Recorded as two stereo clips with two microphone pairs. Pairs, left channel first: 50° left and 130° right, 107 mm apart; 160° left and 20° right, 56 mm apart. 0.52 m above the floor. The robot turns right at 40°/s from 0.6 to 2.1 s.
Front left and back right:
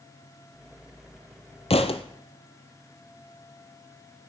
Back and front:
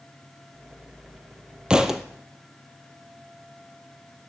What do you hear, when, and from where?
1.7 s a thud: 55° left, 0.9 m; by 2.0 s 65° left, 0.9 m